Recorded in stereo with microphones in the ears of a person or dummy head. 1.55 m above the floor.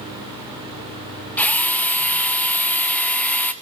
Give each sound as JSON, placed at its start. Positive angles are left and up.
{"t": 1.4, "sound": "a drill", "side_deg": 0, "distance_m": 0.8}